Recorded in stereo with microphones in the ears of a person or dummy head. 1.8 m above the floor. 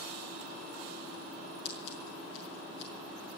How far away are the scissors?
About 5.5 m.